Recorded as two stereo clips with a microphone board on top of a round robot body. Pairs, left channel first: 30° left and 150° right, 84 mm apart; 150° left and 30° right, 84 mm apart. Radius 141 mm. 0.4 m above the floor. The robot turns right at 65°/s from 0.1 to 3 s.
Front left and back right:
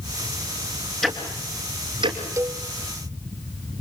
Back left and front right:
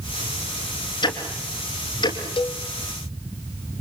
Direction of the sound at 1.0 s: 110° left.